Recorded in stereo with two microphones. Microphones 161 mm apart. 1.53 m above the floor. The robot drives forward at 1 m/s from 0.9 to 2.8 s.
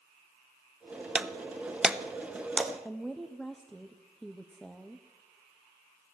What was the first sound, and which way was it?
Breaking glass, 5° right (ahead or behind).